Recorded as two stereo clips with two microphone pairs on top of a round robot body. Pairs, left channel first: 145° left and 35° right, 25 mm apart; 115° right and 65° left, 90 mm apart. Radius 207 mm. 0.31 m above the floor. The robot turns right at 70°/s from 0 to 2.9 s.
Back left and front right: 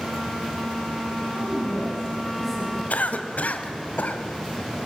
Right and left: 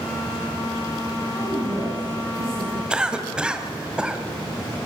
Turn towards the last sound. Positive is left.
turn(degrees=145)